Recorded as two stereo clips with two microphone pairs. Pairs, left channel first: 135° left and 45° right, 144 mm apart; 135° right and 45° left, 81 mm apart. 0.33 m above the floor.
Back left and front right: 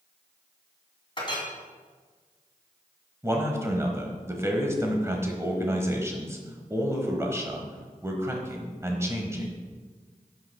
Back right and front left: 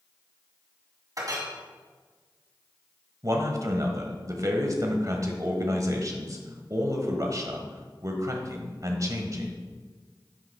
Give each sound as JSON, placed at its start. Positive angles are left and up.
{"t": 1.2, "sound": "a clink", "azimuth_deg": 85, "distance_m": 2.0}
{"t": 3.2, "sound": "a man speaking", "azimuth_deg": 20, "distance_m": 1.3}